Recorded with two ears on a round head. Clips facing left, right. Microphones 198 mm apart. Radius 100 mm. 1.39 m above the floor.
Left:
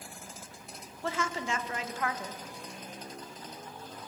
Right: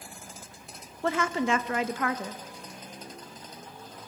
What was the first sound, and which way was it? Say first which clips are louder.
A woman speaking: right 7 dB; 50° right (ahead or behind).